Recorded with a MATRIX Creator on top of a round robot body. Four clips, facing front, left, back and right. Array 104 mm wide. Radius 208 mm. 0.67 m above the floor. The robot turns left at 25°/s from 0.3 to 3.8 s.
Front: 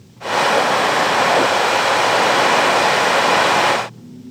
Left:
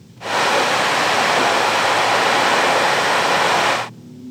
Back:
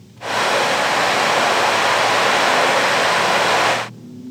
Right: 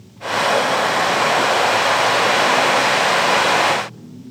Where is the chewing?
No chewing in this recording.